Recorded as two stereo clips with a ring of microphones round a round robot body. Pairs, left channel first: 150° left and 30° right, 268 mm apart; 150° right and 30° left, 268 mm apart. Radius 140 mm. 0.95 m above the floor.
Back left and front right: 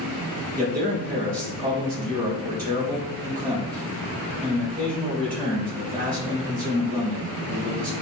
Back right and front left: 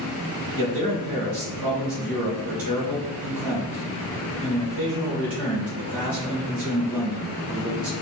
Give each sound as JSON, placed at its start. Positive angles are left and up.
{"t": 0.6, "sound": "a man speaking", "azimuth_deg": 30, "distance_m": 3.5}